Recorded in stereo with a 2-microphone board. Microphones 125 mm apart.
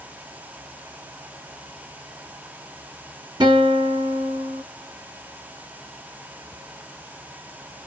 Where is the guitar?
40° right (ahead or behind), 1.5 m.